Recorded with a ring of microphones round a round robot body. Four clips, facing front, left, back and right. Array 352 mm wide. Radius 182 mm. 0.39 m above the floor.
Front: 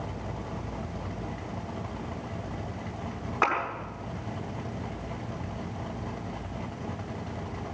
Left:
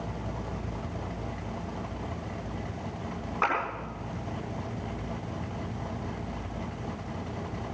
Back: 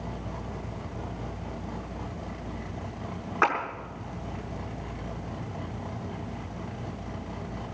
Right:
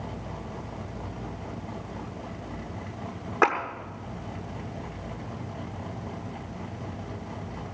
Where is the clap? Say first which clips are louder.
Right 5 dB, back 2 dB; 105° right, 7 m.